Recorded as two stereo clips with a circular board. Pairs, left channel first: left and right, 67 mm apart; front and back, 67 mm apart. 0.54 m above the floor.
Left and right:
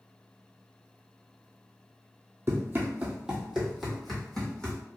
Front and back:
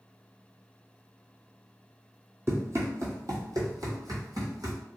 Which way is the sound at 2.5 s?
140° right.